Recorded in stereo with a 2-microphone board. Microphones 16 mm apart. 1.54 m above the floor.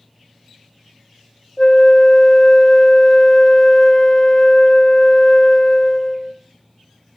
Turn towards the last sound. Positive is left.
turn(degrees=25)  # may be behind; listen again after turning